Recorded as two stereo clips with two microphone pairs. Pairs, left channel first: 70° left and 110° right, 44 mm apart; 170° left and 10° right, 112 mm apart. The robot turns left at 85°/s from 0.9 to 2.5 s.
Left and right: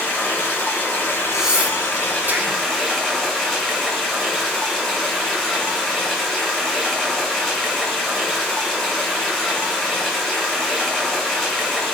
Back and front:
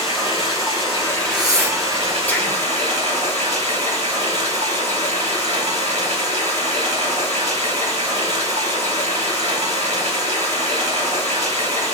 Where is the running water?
125° left, 5 m; by 11.9 s 15° right, 5 m.